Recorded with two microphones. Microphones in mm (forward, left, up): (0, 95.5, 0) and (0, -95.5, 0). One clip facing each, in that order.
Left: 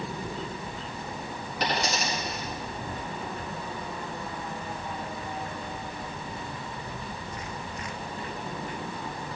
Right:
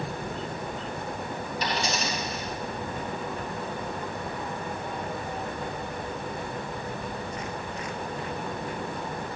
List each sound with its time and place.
1.6 s a dropped coin: 75° left (ahead or behind), 5.5 m